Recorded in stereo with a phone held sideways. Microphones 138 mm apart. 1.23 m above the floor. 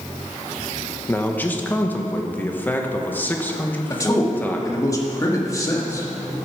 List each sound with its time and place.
1.1 s a man speaking: 15° left (ahead or behind), 1.2 m
3.9 s a man speaking: 25° left (ahead or behind), 1.9 m